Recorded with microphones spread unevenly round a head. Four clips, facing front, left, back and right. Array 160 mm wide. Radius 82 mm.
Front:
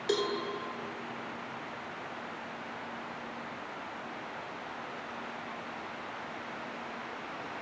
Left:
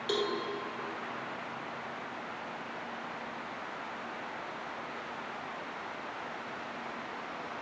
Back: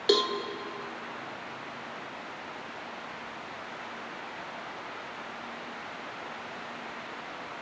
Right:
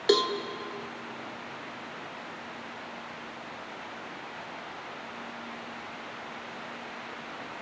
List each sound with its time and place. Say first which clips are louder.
0.1 s a cowbell: right 8 dB, back 5 dB; 125° right, 1.5 m